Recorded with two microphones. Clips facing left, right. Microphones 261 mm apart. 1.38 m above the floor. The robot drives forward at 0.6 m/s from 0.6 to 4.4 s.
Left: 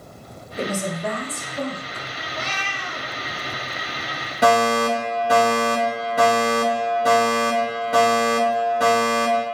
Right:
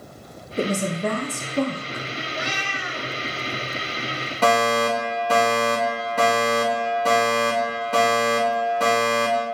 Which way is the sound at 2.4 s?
15° right (ahead or behind).